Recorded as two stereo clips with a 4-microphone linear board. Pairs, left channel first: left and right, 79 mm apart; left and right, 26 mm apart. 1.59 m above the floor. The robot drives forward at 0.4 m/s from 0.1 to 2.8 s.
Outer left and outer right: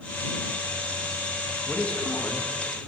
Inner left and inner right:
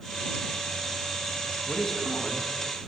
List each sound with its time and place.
1.7 s a man speaking: 15° left (ahead or behind), 2.5 m